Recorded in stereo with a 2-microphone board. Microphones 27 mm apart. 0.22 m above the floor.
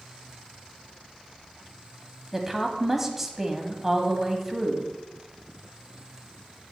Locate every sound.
2.3 s a woman speaking: 15° right (ahead or behind), 1.0 m